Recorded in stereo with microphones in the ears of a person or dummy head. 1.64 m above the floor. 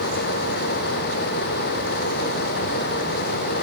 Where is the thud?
No thud in this recording.